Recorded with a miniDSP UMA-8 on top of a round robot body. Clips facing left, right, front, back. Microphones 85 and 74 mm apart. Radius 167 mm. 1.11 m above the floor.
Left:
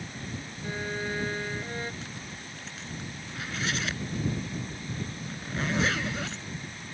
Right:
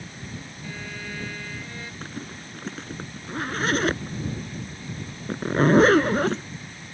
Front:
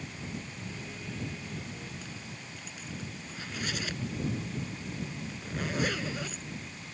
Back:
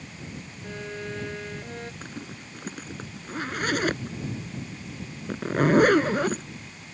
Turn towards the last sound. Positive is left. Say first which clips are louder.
# right 5 dB, back 5 dB
turn(degrees=-140)